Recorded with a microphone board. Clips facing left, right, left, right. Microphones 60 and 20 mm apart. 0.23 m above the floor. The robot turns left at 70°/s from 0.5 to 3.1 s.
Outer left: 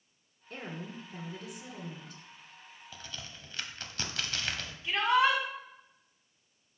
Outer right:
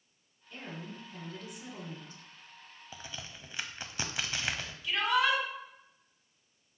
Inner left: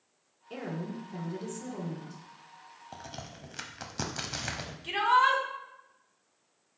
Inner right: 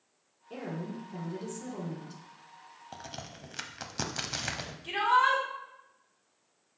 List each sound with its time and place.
0.5 s a woman speaking: 75° left, 2 m; by 2.2 s 45° right, 2 m
2.9 s a crack: 20° right (ahead or behind), 0.6 m; by 4.7 s 15° right (ahead or behind), 0.6 m
4.8 s a shout: 30° left (ahead or behind), 2 m